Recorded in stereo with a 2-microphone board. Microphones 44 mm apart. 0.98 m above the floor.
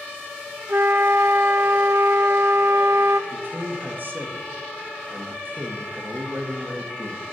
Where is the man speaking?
45° right (ahead or behind), 1.5 m.